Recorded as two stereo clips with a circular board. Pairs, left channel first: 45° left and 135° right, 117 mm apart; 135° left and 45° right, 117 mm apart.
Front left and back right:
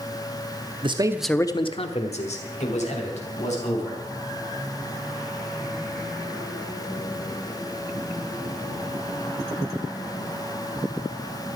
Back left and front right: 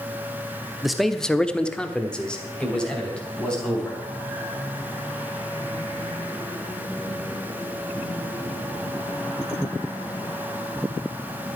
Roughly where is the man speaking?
Behind right.